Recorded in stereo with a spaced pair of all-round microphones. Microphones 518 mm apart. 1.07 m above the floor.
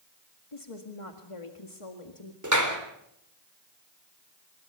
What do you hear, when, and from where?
0.5 s a woman speaking: 80° left, 2 m
2.4 s a clap: 35° right (ahead or behind), 3.5 m